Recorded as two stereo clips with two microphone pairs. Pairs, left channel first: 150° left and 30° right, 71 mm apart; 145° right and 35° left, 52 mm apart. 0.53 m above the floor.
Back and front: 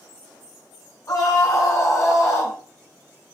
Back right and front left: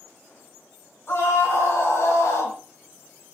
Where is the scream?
175° right, 4 m; by 2.6 s 155° right, 2.5 m.